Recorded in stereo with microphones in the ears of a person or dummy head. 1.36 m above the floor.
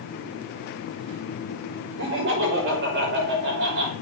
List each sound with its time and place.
2.0 s laughter: 65° right (ahead or behind), 5.5 m